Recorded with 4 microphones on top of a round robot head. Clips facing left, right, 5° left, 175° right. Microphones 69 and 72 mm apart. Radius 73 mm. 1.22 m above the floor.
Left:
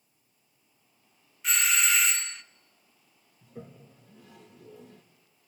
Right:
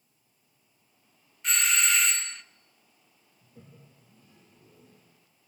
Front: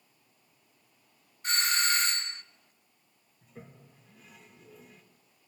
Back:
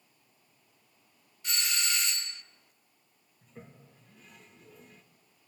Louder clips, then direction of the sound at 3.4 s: Left 8 dB, front 1 dB; 95° left.